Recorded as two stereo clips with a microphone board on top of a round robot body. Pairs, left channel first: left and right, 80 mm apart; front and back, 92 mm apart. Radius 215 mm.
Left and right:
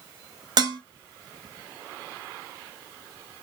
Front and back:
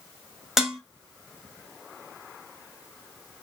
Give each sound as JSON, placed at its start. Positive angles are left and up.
{"t": 0.6, "sound": "dishes clattering", "azimuth_deg": -95, "distance_m": 0.9}